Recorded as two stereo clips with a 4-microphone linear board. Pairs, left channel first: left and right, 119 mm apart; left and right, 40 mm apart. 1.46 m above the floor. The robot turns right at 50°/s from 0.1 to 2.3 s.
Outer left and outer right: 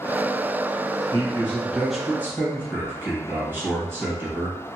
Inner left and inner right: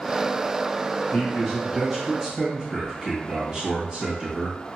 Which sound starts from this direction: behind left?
A man speaking, at 1.1 s.